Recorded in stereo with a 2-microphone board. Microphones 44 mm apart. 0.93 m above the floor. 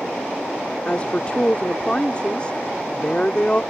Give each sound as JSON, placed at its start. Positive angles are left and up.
{"t": 0.8, "sound": "a woman speaking", "side_deg": 25}